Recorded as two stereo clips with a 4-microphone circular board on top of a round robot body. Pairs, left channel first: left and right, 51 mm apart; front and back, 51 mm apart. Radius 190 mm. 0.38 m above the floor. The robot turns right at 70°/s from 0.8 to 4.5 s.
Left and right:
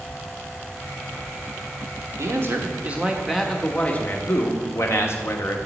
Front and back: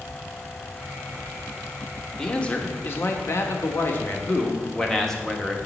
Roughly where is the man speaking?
Right.